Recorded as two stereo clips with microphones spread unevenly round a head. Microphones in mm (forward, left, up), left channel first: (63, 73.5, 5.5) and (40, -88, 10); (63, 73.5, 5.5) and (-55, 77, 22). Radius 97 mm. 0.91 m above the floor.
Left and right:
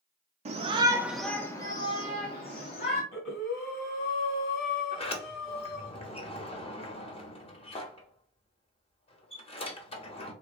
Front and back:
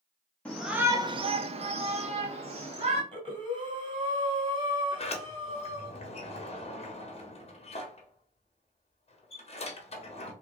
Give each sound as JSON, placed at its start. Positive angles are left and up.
{"t": 0.5, "sound": "a shout", "azimuth_deg": -70, "distance_m": 0.7}
{"t": 3.1, "sound": "breathing", "azimuth_deg": 140, "distance_m": 2.0}
{"t": 4.9, "sound": "a sliding door", "azimuth_deg": 25, "distance_m": 1.4}